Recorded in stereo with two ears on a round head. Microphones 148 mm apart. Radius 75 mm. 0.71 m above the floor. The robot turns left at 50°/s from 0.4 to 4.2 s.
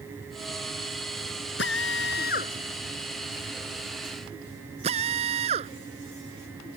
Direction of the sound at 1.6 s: 85° left.